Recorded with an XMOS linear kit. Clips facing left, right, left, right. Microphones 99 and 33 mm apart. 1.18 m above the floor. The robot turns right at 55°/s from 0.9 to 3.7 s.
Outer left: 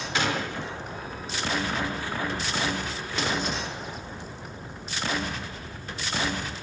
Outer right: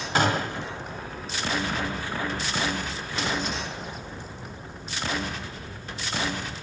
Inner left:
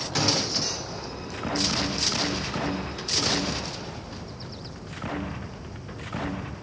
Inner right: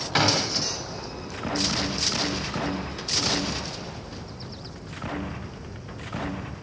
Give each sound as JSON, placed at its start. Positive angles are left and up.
{"t": 0.1, "sound": "a gunshot", "side_deg": -40, "distance_m": 0.7}